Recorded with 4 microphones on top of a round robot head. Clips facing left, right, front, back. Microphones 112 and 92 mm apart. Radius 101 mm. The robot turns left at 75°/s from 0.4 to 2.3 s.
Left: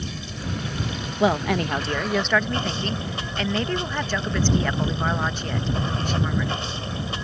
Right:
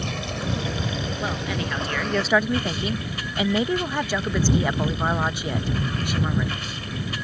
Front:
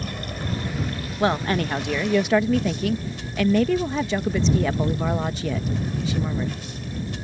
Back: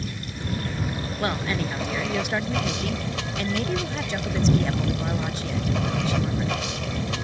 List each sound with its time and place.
0.0 s running water: 55° right; by 7.2 s 160° left
1.2 s a woman speaking: 75° left; by 6.6 s 10° right